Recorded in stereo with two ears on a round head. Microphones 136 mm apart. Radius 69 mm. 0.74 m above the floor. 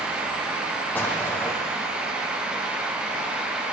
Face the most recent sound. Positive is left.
turn(degrees=15)  # may be behind; listen again after turning